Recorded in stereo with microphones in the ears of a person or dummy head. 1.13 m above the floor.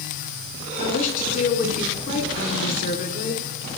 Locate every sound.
0.8 s a woman speaking: 40° left (ahead or behind), 3 m